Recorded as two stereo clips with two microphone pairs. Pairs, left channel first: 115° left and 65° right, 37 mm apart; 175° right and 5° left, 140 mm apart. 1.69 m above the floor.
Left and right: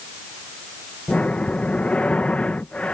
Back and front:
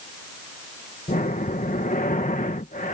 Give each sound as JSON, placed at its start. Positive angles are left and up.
{"t": 1.1, "sound": "breathing", "azimuth_deg": 170}